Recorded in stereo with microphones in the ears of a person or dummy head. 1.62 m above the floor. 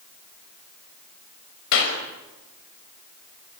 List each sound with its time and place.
1.7 s a clap: 75° left (ahead or behind), 5.5 m